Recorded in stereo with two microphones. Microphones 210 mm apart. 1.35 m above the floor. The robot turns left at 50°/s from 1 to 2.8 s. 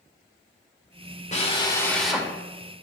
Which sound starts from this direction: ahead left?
A drill, at 1.3 s.